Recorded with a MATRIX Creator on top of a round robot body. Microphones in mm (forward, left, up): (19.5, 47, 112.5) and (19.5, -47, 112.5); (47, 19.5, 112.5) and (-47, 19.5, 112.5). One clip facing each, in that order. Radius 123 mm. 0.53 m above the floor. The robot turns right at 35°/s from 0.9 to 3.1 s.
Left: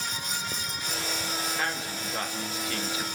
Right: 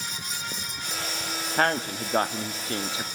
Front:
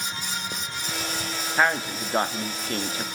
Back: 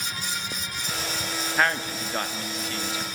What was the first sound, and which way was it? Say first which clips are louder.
A man speaking: right 7 dB, front 2 dB; 80° right.